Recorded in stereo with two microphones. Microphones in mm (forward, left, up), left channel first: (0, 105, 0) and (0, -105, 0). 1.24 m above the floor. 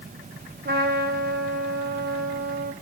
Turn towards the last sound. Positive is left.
turn(degrees=-50)  # may be behind; listen again after turning